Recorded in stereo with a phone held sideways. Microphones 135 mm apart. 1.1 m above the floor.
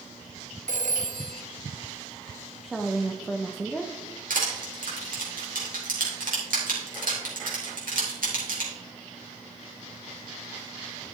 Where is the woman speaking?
Centre (ahead or behind), 0.5 m.